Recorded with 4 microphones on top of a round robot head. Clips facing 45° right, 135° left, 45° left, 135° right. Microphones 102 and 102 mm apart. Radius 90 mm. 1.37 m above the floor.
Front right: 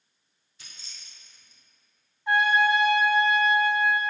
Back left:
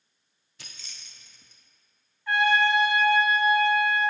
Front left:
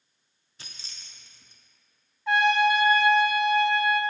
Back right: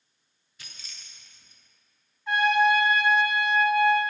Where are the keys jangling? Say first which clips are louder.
Back left 2 dB, even; 105° left, 0.6 m.